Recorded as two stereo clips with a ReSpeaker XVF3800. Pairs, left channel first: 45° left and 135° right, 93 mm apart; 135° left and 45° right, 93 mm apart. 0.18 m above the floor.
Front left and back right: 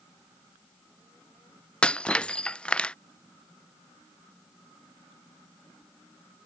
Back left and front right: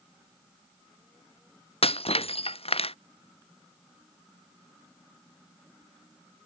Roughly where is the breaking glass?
Behind left.